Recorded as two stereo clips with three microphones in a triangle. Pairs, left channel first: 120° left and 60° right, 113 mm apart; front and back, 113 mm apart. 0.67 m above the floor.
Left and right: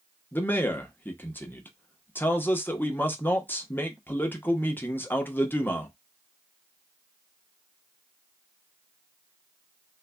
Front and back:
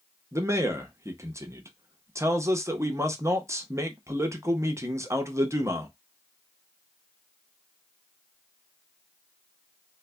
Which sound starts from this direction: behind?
A man speaking, at 0.3 s.